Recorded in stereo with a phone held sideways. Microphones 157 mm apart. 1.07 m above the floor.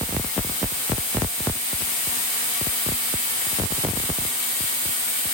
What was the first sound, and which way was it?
Only background noise.